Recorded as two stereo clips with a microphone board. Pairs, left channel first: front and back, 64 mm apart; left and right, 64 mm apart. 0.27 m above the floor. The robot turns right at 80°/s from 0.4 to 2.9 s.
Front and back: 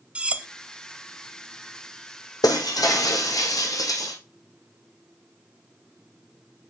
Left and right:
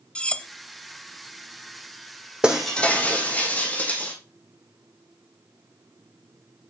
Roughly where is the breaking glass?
Ahead.